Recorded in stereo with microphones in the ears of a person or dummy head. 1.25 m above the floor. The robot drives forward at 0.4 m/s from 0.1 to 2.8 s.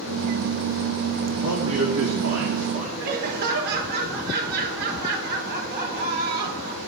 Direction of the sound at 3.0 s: 50° right (ahead or behind).